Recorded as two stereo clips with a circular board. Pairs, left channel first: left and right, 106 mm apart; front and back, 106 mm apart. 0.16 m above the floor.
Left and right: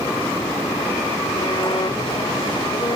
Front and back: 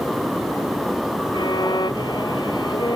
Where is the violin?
50° left.